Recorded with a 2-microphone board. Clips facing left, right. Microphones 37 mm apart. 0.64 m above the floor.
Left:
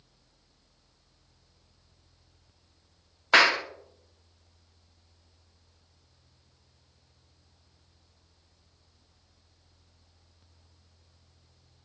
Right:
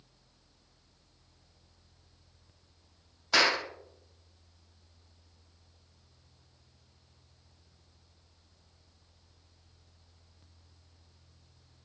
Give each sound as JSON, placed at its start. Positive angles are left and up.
{"t": 3.3, "sound": "a clap", "side_deg": 40, "distance_m": 0.7}